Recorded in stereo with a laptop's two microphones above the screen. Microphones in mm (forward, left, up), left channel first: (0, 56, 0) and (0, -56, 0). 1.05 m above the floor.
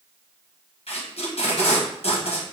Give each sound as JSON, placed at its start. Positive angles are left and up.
{"t": 0.9, "sound": "tape being pulled", "side_deg": 60, "distance_m": 1.0}